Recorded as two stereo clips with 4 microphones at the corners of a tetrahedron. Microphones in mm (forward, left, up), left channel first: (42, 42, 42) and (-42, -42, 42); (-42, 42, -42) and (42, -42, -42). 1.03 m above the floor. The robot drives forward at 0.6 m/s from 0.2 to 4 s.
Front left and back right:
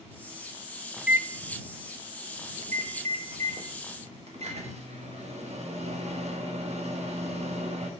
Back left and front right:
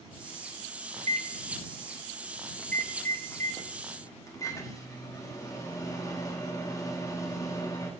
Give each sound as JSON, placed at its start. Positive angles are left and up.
{"t": 1.0, "sound": "a microwave", "azimuth_deg": -50, "distance_m": 0.6}